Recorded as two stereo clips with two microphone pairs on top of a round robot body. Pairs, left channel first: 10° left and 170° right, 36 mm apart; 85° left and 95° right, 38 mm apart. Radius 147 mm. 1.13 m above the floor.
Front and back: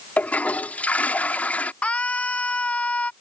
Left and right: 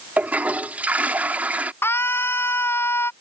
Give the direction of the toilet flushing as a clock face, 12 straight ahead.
1 o'clock.